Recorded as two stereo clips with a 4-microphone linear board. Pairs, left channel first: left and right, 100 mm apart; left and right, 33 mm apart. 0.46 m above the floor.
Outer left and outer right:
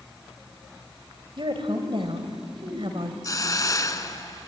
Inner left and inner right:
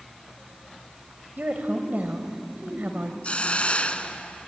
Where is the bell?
I don't hear a bell.